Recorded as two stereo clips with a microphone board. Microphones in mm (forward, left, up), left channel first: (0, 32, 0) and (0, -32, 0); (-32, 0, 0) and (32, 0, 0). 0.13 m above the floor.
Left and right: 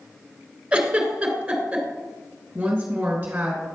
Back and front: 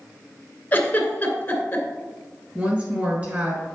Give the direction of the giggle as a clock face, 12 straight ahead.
5 o'clock.